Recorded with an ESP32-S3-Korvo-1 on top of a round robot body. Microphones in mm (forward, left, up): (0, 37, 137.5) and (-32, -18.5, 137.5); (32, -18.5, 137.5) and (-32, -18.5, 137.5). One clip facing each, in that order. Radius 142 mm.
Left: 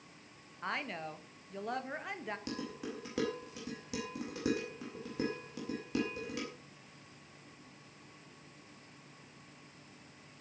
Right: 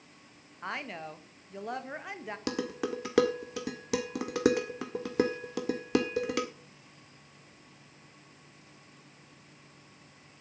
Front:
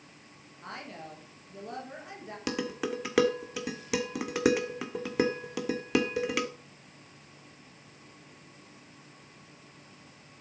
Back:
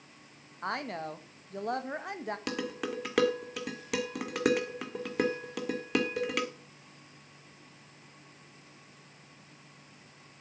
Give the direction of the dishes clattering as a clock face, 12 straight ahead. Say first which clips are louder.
Right 8 dB, front 6 dB; 3 o'clock.